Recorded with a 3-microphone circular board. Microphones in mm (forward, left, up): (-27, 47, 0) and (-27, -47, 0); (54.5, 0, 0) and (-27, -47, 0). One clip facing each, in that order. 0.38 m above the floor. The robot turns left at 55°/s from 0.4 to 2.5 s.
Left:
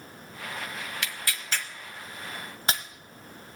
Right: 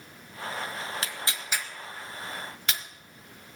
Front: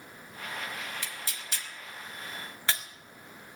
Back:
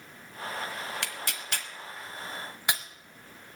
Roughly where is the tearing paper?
Behind right.